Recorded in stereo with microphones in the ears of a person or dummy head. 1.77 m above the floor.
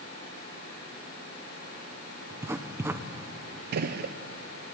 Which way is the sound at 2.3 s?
10° right (ahead or behind).